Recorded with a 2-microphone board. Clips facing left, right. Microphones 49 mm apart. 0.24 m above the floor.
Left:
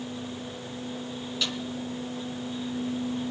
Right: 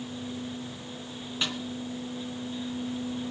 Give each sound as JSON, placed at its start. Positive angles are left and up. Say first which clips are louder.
{"t": 1.4, "sound": "a snare drum", "louder": "right 1 dB", "side_deg": -30, "distance_m": 1.8}